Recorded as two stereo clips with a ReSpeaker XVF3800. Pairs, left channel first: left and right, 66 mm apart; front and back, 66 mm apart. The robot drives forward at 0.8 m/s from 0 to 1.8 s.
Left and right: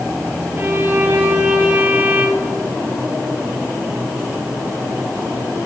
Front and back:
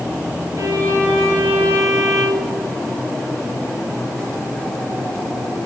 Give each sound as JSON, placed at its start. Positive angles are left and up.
{"t": 0.6, "sound": "a violin", "azimuth_deg": -150, "distance_m": 1.8}